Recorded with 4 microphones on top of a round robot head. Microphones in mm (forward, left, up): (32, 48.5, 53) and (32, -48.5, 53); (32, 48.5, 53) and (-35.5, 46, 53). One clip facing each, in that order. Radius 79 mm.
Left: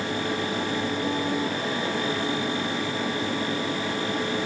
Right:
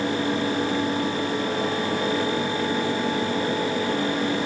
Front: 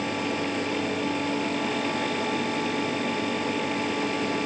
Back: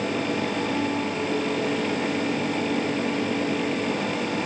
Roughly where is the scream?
No scream in this recording.